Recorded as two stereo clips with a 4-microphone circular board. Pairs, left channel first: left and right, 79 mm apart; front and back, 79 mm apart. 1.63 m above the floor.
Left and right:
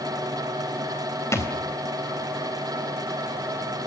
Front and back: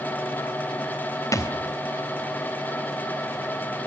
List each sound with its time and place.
1.3 s a thud: 40° left, 3.5 m